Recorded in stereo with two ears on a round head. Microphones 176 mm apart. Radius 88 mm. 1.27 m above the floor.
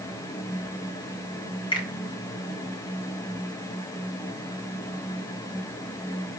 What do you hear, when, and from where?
1.7 s a finger snap: 25° left (ahead or behind), 4.5 m